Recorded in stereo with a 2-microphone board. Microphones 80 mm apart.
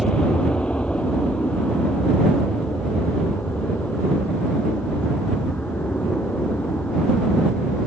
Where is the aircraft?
15° left (ahead or behind); by 7.9 s 25° left (ahead or behind).